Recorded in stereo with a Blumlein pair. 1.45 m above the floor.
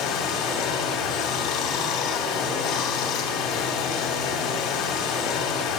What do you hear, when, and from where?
0.0 s running water: 35° left, 2.5 m